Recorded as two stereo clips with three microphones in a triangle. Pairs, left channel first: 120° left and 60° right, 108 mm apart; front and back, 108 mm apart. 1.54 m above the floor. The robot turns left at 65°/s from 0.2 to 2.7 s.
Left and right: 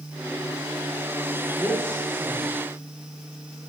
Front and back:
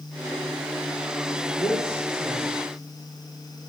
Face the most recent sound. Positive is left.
turn(degrees=-55)